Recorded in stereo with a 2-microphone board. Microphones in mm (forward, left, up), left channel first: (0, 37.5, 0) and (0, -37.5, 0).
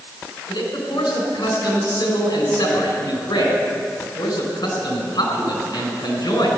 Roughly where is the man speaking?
Left.